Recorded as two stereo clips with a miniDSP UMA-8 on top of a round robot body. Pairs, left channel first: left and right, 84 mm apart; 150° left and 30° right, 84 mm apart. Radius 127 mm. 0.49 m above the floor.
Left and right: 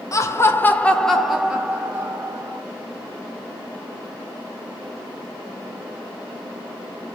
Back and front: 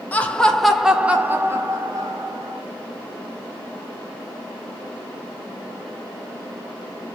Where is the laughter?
90° left, 1.1 m; by 2.6 s 45° right, 1.4 m.